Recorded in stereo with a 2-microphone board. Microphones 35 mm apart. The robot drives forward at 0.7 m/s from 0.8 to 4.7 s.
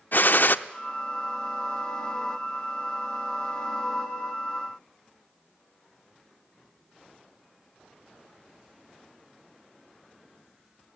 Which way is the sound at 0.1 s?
65° left (ahead or behind).